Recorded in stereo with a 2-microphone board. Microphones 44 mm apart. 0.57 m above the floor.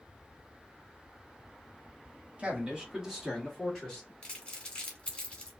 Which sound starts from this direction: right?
A man speaking, at 2.4 s.